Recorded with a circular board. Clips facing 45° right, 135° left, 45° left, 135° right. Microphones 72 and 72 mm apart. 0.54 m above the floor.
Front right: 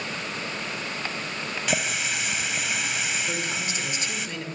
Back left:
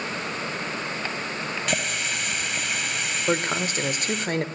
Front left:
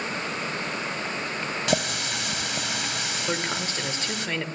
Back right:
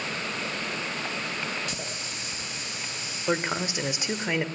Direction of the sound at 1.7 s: 45° left.